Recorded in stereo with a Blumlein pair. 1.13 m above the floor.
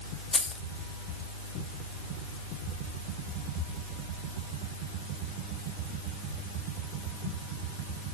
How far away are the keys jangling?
About 1.5 m.